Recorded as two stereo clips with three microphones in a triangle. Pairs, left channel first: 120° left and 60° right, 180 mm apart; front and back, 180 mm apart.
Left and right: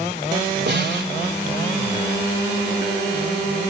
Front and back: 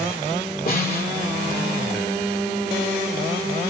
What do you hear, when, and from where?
0.7 s a snare drum: 35° right, 3.5 m